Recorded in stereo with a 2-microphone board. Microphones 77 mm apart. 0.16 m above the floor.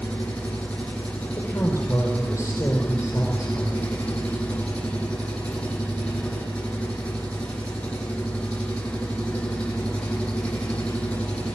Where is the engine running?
15° left (ahead or behind), 6 m.